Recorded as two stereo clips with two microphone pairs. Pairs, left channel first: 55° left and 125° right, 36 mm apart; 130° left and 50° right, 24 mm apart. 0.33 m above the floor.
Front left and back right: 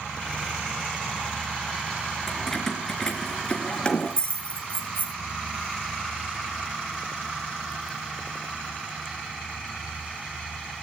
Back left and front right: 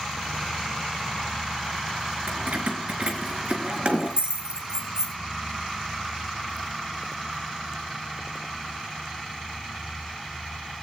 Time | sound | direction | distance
2.3 | keys jangling | 25° right | 3.5 m